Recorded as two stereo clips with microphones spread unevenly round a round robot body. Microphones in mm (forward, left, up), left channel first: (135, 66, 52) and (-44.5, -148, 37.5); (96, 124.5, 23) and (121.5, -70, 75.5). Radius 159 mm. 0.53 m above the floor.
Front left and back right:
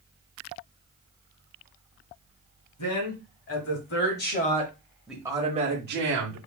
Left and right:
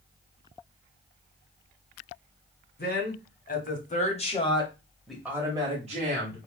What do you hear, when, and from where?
2.8 s a woman speaking: 80° left, 2 m; by 6.4 s 135° right, 1.4 m